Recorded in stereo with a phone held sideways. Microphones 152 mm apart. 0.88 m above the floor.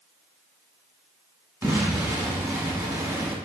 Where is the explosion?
20° right (ahead or behind), 1.0 m.